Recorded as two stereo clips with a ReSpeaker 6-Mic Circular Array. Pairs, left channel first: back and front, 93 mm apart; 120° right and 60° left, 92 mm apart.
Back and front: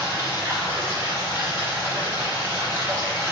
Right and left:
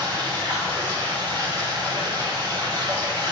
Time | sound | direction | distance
0.0 | running water | 55° left | 1.5 m